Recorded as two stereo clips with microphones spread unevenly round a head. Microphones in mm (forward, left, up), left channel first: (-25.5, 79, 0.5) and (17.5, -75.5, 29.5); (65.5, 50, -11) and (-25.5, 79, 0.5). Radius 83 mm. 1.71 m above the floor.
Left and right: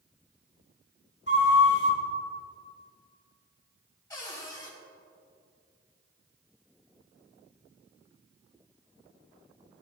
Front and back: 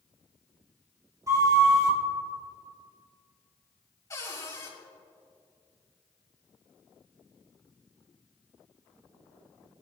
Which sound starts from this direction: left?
A flute, at 1.3 s.